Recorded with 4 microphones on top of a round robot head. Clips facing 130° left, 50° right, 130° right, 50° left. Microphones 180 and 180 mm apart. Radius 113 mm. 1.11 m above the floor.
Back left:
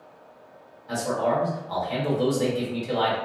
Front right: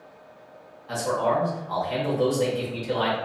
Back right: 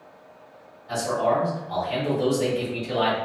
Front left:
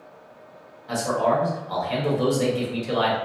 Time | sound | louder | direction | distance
0.9 | a man speaking | even, front left 1 dB | 50° left | 1.6 m